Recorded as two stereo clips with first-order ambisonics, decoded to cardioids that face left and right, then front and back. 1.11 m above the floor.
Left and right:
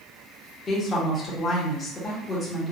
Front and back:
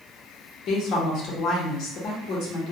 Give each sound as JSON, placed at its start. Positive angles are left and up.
{"t": 0.7, "sound": "a woman speaking", "azimuth_deg": 25, "distance_m": 0.8}